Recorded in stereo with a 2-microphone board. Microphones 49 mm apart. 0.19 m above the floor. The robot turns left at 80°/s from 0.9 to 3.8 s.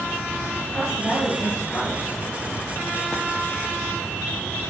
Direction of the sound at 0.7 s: Straight behind.